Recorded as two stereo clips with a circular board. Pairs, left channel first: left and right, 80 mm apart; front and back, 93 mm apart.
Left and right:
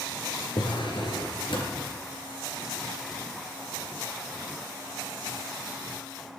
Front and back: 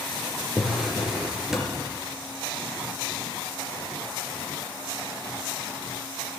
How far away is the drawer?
About 3.5 m.